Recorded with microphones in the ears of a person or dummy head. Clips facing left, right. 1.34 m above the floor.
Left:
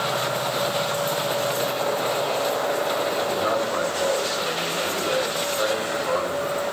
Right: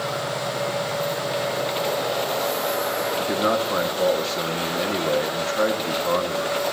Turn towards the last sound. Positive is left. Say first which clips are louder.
# right 1 dB
turn(degrees=-65)  # may be behind; listen again after turning